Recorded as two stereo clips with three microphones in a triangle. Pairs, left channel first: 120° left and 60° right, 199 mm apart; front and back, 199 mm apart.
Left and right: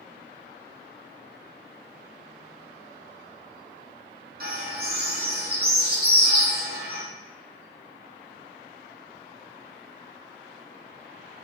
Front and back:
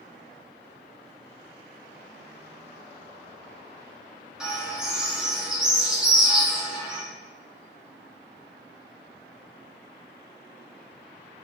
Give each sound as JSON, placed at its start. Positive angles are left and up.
{"t": 4.4, "sound": "a bird", "azimuth_deg": -95, "distance_m": 0.8}